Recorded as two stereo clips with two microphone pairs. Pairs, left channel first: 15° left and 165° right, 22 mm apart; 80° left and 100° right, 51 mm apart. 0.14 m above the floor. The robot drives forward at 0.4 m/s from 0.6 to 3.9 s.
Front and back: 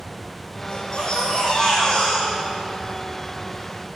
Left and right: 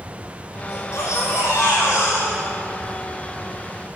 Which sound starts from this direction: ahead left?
A baby crying, at 0.7 s.